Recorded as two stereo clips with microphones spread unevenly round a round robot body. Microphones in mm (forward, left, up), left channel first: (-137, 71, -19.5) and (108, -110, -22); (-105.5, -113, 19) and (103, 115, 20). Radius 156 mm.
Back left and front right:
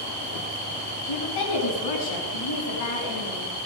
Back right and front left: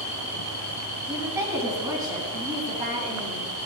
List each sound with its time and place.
1.1 s a woman speaking: 130° left, 3.5 m; by 3.5 s 120° left, 4.5 m